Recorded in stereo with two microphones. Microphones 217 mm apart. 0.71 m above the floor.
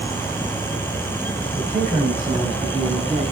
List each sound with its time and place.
1.5 s a man speaking: 30° right (ahead or behind), 4 m; by 3.2 s 20° right (ahead or behind), 6.5 m